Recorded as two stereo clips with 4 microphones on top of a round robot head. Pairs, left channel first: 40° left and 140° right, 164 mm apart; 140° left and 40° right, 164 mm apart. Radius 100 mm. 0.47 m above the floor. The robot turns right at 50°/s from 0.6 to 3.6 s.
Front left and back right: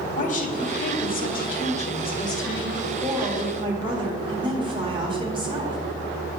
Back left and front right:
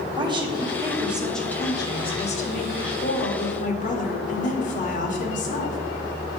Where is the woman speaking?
15° left, 1.7 m; by 5.8 s 165° left, 1.7 m.